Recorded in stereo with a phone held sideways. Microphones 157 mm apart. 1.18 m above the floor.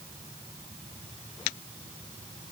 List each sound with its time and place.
Only background noise.